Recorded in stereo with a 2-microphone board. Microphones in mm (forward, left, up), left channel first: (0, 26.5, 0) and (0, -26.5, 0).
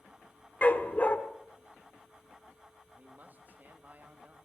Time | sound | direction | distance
0.6 | a dog barking | 35° left (ahead or behind) | 1.5 m
3.0 | a man speaking | 35° right (ahead or behind) | 2.5 m